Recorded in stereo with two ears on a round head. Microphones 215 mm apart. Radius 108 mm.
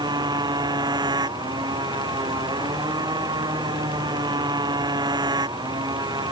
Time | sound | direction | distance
0.0 | a motorcycle | 15° right (ahead or behind) | ?